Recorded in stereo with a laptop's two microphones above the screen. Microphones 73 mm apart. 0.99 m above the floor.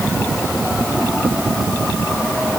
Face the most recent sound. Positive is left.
No sound to turn to.